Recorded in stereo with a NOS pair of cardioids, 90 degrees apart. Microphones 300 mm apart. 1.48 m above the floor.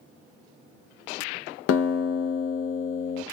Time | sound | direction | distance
1.7 | a guitar | 50° left | 0.5 m